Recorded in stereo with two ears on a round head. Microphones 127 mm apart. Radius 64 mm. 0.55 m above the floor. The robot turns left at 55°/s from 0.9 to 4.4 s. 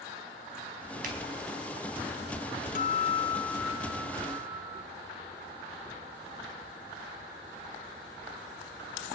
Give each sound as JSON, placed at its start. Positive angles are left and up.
{"t": 1.0, "sound": "a finger snap", "side_deg": -65, "distance_m": 4.5}
{"t": 2.8, "sound": "a guitar", "azimuth_deg": 65, "distance_m": 0.6}